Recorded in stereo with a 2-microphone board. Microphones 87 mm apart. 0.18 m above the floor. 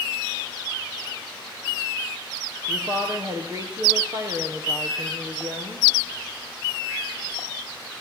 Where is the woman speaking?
35° right (ahead or behind), 4.5 m.